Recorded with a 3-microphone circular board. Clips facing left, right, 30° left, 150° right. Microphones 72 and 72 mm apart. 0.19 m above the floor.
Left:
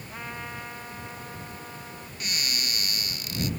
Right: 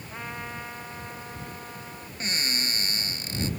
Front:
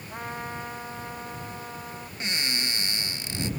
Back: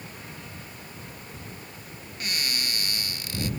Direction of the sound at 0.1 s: 5° right.